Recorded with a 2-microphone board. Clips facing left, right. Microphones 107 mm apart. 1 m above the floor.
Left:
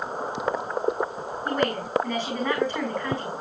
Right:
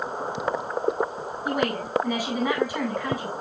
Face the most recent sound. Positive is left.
turn(degrees=-10)  # may be behind; listen again after turning